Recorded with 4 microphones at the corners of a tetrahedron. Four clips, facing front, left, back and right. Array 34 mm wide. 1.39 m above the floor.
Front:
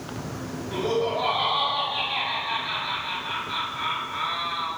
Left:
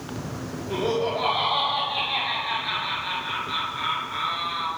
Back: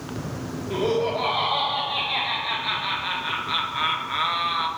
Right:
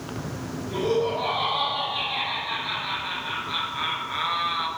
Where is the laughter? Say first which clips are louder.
Right 1 dB, back 2 dB; 135° left, 2.5 m; by 4.7 s 150° right, 1.4 m.